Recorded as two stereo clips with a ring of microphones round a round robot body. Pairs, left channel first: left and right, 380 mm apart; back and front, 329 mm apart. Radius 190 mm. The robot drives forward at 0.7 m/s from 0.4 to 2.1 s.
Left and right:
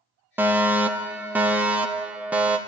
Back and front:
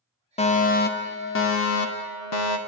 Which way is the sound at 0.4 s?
165° right.